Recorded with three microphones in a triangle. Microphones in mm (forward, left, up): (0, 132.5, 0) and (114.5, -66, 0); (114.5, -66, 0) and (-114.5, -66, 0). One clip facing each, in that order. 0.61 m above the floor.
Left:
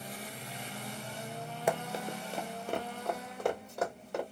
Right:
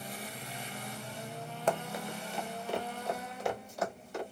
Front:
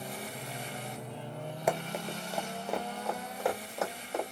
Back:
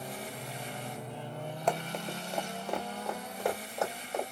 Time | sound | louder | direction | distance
1.7 | running footsteps | even, front 1 dB | 65° left | 0.5 m